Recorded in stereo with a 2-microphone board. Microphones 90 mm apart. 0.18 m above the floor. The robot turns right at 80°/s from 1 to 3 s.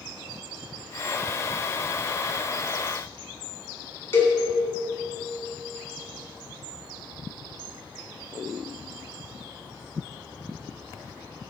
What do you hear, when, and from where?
4.1 s a cowbell: 25° left (ahead or behind), 1.4 m